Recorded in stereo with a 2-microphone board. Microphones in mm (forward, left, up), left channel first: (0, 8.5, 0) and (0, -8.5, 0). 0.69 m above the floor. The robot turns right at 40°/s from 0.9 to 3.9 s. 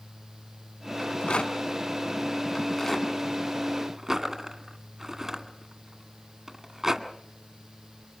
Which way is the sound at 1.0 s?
60° left (ahead or behind).